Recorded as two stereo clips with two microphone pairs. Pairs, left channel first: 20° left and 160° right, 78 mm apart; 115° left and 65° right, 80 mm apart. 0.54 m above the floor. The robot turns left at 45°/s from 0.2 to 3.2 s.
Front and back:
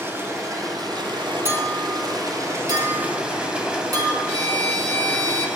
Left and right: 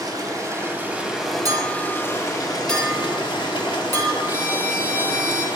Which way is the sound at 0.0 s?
105° right.